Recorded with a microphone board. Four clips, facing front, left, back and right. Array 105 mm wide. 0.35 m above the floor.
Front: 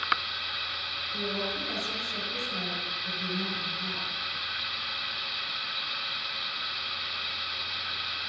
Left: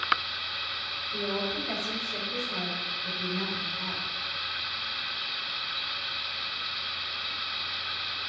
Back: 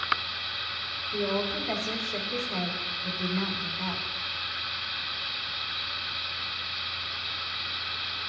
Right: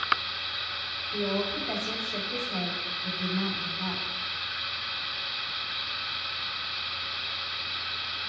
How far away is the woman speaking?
About 3 m.